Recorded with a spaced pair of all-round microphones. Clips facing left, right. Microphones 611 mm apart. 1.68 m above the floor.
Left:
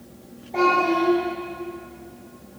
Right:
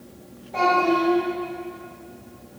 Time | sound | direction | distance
0.5 | a child speaking | 35° right (ahead or behind) | 1.0 m